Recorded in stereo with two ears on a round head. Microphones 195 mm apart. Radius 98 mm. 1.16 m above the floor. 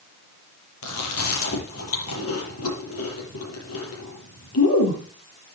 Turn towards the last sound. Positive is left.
turn(degrees=70)  # may be behind; listen again after turning